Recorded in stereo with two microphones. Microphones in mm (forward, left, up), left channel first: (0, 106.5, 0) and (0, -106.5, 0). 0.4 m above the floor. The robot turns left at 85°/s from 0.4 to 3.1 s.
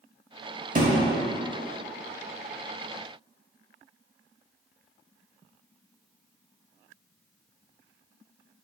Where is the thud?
40° right (ahead or behind), 0.6 m; by 1.1 s 10° right (ahead or behind), 0.6 m.